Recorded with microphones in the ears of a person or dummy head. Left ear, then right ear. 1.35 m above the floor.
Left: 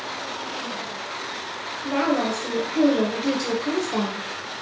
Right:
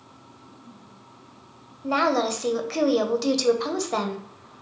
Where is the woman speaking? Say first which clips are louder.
Right 1 dB; 80° right, 0.6 m.